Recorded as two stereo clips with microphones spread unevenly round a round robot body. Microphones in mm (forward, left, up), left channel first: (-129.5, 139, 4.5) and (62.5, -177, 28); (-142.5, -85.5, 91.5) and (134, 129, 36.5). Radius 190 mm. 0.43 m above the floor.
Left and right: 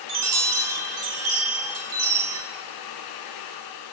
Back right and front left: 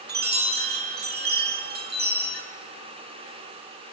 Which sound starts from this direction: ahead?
A chime, at 0.1 s.